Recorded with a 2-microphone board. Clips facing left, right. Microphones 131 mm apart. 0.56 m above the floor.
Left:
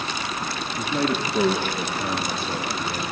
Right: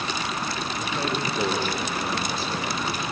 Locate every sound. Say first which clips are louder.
0.8 s a man speaking: left 6 dB; 60° left (ahead or behind), 7 m; by 3.1 s 70° left (ahead or behind), 6.5 m